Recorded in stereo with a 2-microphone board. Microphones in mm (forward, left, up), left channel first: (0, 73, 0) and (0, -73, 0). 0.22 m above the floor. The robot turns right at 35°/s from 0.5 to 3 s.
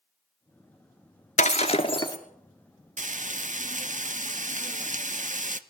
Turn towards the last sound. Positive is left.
turn(degrees=-55)  # may be behind; listen again after turning